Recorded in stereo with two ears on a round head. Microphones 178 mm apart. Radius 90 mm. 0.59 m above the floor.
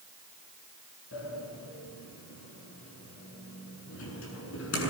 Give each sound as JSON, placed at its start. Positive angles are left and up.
{"t": 1.1, "sound": "a sliding door", "side_deg": 70, "distance_m": 7.5}